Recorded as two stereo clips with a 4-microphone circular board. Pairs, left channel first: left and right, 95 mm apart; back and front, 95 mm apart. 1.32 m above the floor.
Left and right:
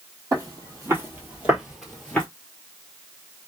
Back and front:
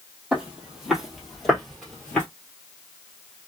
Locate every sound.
0.3 s footsteps: 75° right, 1.7 m; by 2.2 s 130° left, 1.3 m